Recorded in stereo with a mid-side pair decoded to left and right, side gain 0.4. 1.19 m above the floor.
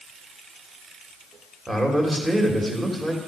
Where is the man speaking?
25° right, 1.9 m.